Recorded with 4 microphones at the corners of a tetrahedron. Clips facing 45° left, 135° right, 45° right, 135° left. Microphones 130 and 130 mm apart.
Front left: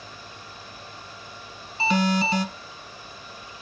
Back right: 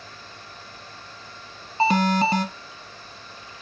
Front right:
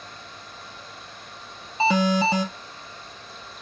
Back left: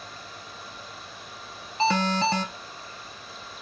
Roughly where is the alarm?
Behind right.